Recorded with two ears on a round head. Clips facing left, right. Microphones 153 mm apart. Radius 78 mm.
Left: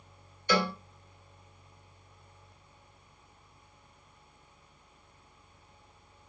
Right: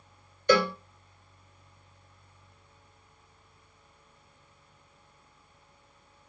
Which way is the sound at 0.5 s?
50° right (ahead or behind).